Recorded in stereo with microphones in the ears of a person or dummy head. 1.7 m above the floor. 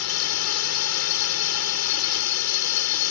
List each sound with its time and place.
0.0 s a drone: 85° left